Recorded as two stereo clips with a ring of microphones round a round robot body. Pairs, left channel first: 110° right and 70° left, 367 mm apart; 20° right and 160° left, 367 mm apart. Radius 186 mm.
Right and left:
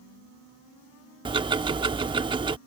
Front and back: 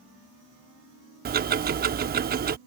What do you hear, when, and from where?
1.2 s ticking: 130° left